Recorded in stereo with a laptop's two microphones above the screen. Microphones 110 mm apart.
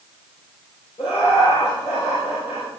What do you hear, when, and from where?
1.0 s laughter: 75° left (ahead or behind), 3.5 m